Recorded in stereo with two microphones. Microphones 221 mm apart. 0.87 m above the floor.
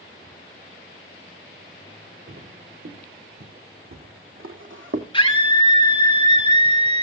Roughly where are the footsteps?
Right.